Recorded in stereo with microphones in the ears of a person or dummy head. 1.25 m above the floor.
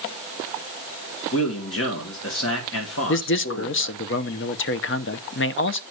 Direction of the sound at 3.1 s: 60° left (ahead or behind).